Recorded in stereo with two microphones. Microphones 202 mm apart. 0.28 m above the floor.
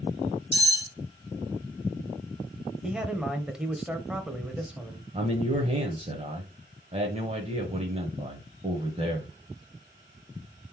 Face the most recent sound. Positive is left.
turn(degrees=-35)  # may be behind; listen again after turning